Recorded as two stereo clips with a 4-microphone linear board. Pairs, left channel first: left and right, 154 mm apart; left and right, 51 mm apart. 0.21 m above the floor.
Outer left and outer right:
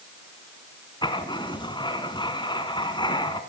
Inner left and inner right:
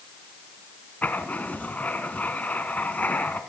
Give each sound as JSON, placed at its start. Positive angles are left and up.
{"t": 1.0, "sound": "writing", "side_deg": 30, "distance_m": 2.0}